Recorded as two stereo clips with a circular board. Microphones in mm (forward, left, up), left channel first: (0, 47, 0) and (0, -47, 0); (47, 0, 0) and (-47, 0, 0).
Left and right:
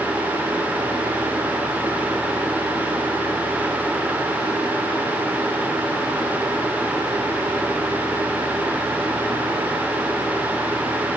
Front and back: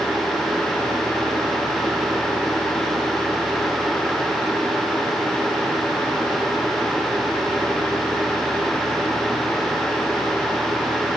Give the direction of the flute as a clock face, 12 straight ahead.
No flute in this recording.